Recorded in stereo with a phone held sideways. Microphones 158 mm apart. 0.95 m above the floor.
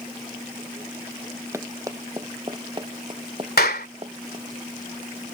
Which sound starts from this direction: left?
A clap, at 3.6 s.